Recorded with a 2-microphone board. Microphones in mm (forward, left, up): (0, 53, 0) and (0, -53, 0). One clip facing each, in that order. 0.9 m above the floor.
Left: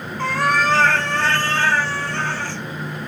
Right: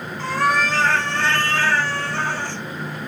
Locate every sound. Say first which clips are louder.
0.2 s a cat meowing: left 1 dB; 65° left (ahead or behind), 1.2 m; by 2.6 s 25° right (ahead or behind), 0.7 m